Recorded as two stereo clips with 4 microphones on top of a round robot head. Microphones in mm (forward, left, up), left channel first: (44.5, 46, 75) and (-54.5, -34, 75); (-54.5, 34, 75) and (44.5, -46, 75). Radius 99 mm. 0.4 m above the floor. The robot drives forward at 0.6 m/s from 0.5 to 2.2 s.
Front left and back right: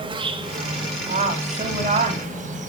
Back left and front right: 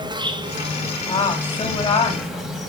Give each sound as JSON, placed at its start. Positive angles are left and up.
{"t": 0.0, "sound": "an insect", "azimuth_deg": -90, "distance_m": 1.4}
{"t": 1.1, "sound": "a woman speaking", "azimuth_deg": -170, "distance_m": 3.0}